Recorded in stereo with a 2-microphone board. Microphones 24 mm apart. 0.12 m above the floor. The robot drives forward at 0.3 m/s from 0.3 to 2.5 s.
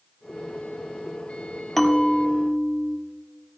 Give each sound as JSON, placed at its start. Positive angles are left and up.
{"t": 1.8, "sound": "a bell", "side_deg": 10, "distance_m": 1.2}